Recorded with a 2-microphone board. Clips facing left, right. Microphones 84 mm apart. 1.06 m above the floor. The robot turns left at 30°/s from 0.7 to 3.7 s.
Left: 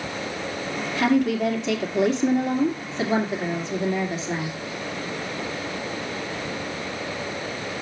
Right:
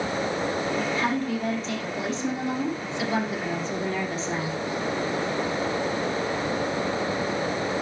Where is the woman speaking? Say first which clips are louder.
Left 5 dB; 105° left, 2.5 m; by 4.6 s 20° left, 2.5 m.